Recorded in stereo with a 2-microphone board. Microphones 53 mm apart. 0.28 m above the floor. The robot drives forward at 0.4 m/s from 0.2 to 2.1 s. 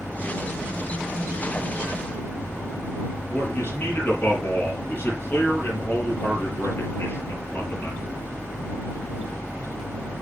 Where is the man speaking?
40° left (ahead or behind), 5 m.